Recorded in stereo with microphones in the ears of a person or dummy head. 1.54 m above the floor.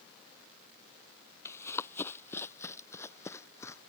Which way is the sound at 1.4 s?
20° left (ahead or behind).